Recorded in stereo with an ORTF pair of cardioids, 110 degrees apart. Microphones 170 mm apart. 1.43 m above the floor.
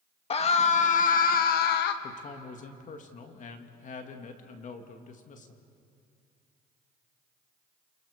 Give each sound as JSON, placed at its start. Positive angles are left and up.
{"t": 0.3, "sound": "a scream", "azimuth_deg": 35, "distance_m": 2.0}
{"t": 2.0, "sound": "a man speaking", "azimuth_deg": 45, "distance_m": 2.0}